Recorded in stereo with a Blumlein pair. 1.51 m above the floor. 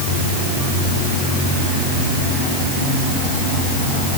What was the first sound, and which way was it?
Only background noise.